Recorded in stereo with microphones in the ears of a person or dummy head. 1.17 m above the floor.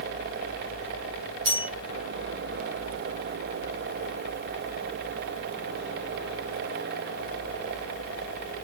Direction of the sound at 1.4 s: 65° right (ahead or behind).